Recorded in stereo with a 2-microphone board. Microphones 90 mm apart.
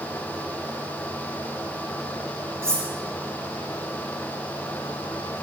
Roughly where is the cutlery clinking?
Right.